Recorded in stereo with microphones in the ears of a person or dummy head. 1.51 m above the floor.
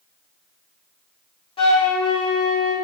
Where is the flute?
25° left (ahead or behind), 0.9 m.